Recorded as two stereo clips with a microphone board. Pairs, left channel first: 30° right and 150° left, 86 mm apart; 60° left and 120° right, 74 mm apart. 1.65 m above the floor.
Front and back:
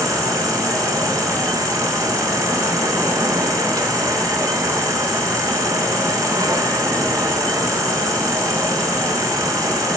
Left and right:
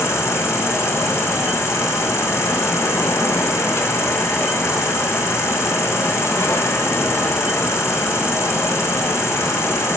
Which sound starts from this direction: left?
An insect, at 0.0 s.